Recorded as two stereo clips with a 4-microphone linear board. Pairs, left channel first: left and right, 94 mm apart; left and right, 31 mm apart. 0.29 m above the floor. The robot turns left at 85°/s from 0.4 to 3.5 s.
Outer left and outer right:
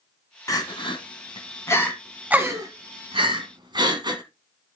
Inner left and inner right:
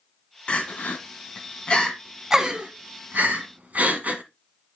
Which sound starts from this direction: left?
Crying, at 0.5 s.